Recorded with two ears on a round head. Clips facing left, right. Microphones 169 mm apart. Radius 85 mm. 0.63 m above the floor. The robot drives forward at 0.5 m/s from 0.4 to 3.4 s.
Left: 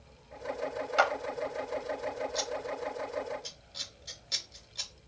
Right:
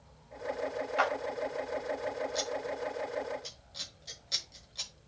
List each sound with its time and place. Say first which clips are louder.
1.0 s a clap: left 4 dB; 60° left (ahead or behind), 1.3 m; by 1.1 s 55° left (ahead or behind), 1.3 m
2.4 s scissors: even; centre (ahead or behind), 0.7 m